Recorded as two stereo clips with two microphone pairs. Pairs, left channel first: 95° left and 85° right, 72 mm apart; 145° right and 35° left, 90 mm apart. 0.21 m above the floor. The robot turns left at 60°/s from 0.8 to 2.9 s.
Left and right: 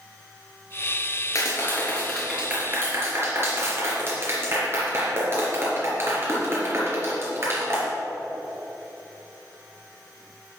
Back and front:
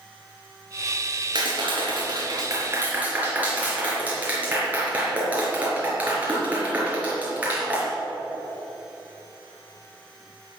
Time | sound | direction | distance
1.4 | a clap | 55° left | 4 m